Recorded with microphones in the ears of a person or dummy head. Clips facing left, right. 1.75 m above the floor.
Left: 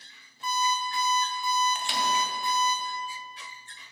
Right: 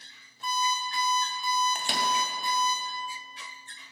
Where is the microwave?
35° right (ahead or behind), 1.0 m.